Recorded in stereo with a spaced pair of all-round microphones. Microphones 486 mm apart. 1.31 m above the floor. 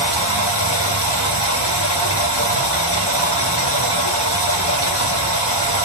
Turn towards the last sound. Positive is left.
turn(degrees=55)  # may be behind; listen again after turning